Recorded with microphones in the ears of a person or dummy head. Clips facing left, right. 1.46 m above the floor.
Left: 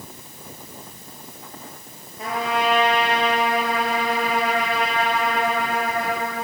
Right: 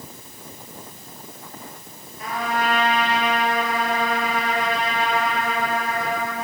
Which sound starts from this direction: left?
A trumpet, at 2.2 s.